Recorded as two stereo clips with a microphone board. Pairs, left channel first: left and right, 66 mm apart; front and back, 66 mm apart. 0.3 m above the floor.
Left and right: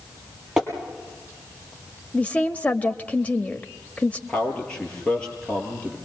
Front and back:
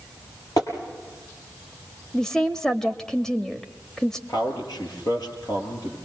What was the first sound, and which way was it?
Tapping, 10° right.